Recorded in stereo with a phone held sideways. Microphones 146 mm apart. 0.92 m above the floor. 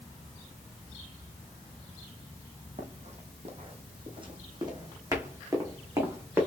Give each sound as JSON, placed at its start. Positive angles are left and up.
{"t": 2.8, "sound": "running footsteps", "side_deg": -55, "distance_m": 1.6}